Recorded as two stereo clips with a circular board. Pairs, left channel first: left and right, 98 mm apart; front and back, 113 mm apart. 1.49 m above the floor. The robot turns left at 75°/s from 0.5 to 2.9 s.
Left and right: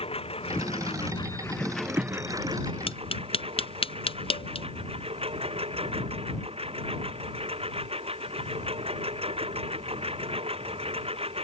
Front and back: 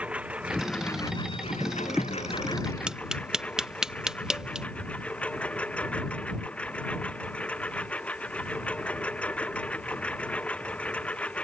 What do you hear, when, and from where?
0.0 s a lawn mower: 100° left; by 11.4 s 80° right
2.9 s tapping: 100° left; by 4.7 s 95° left